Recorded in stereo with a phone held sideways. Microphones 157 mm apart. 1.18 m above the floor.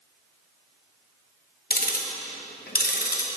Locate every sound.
1.7 s ticking: 75° left (ahead or behind), 0.7 m